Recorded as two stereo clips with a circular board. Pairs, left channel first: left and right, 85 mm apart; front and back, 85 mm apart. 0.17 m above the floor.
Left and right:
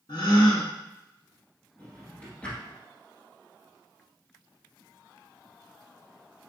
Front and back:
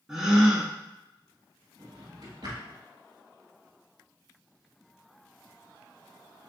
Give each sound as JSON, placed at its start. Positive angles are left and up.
{"t": 0.1, "sound": "a gasp", "azimuth_deg": 100, "distance_m": 0.8}
{"t": 1.8, "sound": "a drawer", "azimuth_deg": 160, "distance_m": 1.2}